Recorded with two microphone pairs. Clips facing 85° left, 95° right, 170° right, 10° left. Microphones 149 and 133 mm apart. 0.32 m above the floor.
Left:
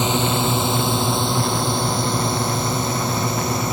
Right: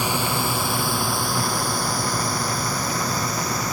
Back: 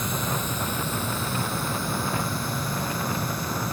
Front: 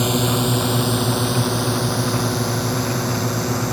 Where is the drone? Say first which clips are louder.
Left 4 dB, front 10 dB; 15° left; by 3.8 s 20° left.